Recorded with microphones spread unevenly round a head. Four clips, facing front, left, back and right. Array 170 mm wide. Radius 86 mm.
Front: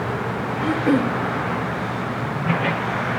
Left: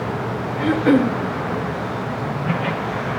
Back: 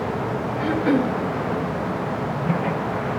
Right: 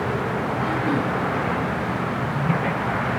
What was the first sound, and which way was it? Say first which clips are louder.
Throat clearing: left 10 dB, front 1 dB; 80° left.